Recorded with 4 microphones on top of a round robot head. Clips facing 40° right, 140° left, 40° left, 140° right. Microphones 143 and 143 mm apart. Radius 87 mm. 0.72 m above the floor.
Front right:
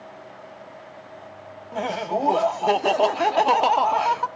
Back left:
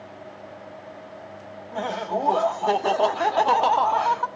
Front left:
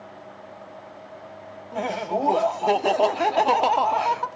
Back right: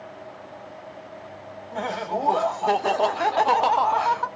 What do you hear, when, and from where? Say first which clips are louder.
1.7 s laughter: front right 1 dB, front left 2 dB; 15° left, 0.6 m